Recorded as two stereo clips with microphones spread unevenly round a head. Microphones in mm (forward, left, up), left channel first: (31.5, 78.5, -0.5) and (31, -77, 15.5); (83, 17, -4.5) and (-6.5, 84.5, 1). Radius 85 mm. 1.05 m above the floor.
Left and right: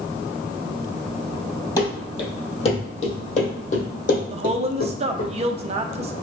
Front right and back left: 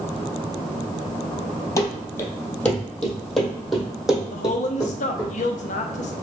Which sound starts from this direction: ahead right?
A woman speaking, at 4.3 s.